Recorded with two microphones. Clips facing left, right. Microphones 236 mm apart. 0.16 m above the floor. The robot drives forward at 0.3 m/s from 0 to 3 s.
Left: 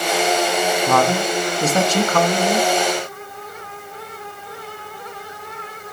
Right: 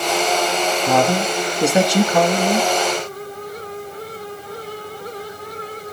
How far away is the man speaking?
About 1.1 m.